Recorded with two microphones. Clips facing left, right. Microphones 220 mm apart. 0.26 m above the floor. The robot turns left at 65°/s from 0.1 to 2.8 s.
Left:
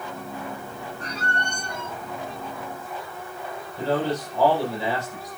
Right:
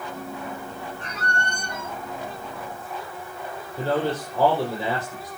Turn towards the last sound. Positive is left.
turn(degrees=-35)  # may be behind; listen again after turning